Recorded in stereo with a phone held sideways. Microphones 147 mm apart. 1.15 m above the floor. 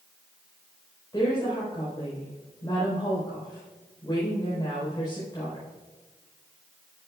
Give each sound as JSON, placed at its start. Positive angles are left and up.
{"t": 1.1, "sound": "a woman speaking", "side_deg": 30, "distance_m": 4.0}